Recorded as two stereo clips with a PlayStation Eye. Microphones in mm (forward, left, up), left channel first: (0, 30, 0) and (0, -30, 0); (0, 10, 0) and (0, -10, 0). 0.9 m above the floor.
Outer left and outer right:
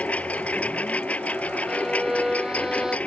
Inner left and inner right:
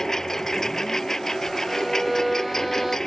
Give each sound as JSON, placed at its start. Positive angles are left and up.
{"t": 0.0, "sound": "a lawn mower", "side_deg": 25}
{"t": 1.7, "sound": "a violin", "side_deg": -10}